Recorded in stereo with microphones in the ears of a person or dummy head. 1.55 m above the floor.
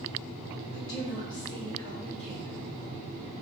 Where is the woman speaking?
35° left (ahead or behind), 1.9 m; by 2.7 s 5° right (ahead or behind), 1.9 m.